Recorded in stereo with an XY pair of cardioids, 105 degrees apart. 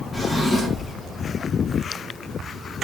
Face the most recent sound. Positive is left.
turn(degrees=5)